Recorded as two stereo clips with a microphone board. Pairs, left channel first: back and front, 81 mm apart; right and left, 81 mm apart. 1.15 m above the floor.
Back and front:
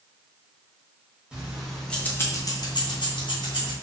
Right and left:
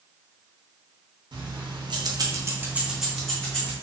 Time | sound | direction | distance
1.3 | keys jangling | 80° left | 0.9 m